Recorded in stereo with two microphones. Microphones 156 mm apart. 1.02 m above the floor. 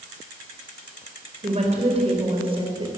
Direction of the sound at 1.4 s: 45° right (ahead or behind).